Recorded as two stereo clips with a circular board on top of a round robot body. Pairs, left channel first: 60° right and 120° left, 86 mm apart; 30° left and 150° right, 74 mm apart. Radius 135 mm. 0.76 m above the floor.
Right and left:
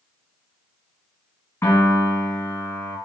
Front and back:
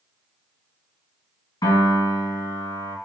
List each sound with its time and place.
1.6 s a piano: 5° left, 1.4 m